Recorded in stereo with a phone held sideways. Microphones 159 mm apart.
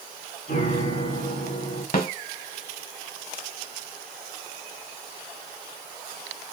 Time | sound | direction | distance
0.5 | a piano | 90° left | 3 m
1.9 | a snare drum | 60° left (ahead or behind) | 1.7 m